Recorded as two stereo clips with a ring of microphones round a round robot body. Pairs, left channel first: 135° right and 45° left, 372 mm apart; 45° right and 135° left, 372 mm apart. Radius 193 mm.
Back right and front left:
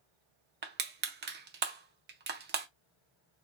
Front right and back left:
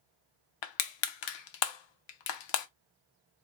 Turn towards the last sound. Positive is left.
turn(degrees=-20)